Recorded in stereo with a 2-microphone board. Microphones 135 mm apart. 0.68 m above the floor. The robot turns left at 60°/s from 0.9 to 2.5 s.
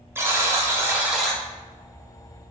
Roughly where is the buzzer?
Behind.